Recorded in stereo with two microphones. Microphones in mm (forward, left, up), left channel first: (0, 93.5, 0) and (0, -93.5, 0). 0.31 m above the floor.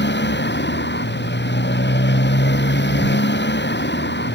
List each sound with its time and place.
0.0 s a motorcycle: 70° left (ahead or behind)